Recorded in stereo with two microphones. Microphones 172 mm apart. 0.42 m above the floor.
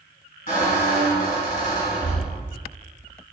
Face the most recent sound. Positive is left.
turn(degrees=60)  # may be behind; listen again after turning